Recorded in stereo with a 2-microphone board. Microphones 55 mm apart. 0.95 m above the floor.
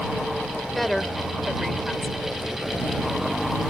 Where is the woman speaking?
5° left (ahead or behind).